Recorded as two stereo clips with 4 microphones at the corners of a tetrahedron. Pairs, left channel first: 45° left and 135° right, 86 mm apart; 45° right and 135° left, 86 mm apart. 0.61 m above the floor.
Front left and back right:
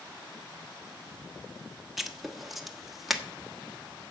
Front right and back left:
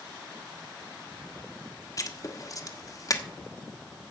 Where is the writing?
45° right, 1.2 m.